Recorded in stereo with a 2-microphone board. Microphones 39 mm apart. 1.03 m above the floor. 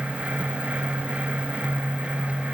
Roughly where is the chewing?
No chewing in this recording.